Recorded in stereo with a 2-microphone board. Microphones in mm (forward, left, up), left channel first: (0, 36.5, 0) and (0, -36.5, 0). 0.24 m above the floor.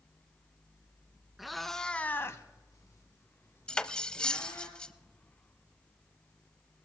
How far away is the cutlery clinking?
About 0.5 m.